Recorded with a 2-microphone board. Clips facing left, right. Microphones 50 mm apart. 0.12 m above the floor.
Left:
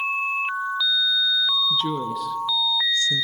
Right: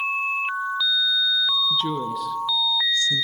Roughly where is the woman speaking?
Centre.